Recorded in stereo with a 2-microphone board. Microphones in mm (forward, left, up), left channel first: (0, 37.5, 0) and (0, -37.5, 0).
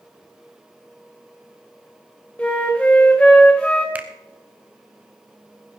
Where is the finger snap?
20° right (ahead or behind), 1.0 m.